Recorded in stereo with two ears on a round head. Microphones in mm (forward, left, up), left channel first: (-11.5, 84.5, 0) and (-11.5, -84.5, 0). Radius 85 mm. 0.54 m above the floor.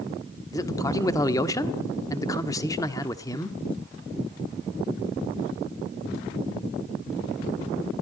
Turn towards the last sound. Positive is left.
turn(degrees=20)  # may be behind; listen again after turning